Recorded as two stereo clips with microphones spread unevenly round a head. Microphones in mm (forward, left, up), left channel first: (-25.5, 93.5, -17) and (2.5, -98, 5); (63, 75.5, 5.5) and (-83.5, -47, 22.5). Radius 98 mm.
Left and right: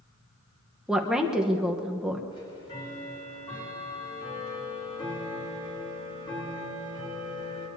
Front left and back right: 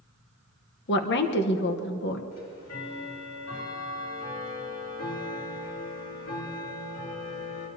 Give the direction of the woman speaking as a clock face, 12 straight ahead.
12 o'clock.